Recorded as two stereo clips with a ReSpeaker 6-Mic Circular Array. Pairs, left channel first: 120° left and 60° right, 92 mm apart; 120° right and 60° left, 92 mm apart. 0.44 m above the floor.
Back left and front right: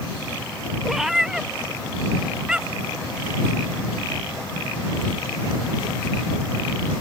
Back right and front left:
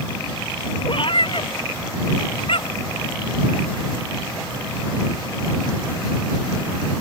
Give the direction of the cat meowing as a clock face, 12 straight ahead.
5 o'clock.